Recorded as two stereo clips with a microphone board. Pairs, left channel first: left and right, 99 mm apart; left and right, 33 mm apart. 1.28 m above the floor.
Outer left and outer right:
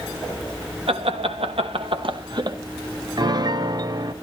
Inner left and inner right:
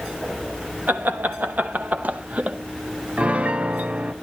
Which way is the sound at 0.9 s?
90° right.